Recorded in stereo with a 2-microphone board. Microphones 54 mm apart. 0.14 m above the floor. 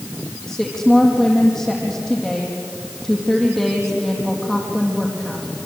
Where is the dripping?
No dripping in this recording.